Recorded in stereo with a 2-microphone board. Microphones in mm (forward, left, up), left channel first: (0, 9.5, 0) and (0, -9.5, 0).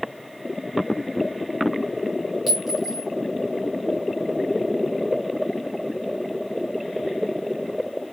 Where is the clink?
10° right (ahead or behind), 3.5 m.